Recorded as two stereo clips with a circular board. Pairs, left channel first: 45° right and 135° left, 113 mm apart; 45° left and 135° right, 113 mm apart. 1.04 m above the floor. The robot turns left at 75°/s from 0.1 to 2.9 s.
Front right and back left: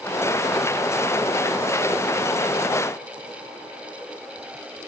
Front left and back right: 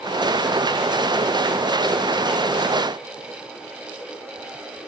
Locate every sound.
Only background noise.